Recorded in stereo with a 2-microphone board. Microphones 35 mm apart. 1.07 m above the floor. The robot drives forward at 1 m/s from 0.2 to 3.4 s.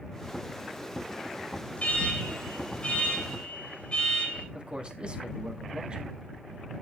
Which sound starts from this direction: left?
An alarm, at 1.8 s.